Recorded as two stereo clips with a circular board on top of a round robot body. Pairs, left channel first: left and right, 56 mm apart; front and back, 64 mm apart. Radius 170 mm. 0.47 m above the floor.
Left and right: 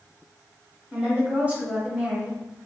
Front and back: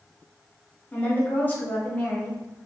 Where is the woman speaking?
45° right, 1.4 m.